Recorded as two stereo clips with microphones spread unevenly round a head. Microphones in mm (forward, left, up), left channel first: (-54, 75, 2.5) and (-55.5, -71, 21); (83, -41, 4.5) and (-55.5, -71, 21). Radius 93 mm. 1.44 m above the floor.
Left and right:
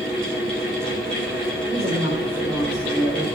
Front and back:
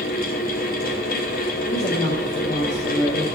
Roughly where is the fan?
Ahead.